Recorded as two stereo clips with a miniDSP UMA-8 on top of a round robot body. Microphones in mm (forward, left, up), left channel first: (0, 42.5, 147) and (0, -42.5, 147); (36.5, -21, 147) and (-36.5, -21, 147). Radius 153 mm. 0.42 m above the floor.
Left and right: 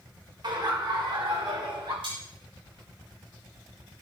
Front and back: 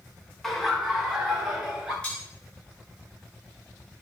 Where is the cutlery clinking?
80° right, 5.5 m.